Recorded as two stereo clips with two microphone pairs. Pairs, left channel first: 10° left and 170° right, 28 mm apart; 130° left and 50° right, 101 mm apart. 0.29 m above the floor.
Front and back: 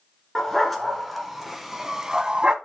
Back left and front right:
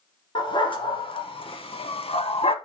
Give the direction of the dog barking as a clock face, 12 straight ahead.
9 o'clock.